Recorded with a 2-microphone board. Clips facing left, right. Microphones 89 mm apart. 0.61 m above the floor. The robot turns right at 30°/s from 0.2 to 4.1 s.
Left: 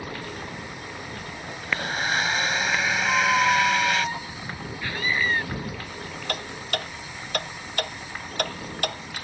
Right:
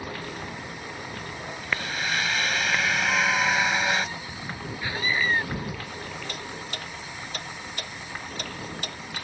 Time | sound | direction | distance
1.6 | a blender | 130° left | ?
3.0 | a squeak | 30° left | ?
4.8 | a scream | 15° right (ahead or behind) | ?
6.3 | ticking | 70° left (ahead or behind) | ?